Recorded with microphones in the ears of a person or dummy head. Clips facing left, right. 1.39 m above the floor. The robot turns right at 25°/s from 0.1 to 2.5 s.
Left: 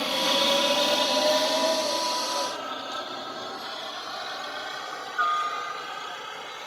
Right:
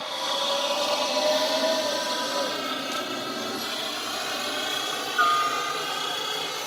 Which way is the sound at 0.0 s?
50° left (ahead or behind).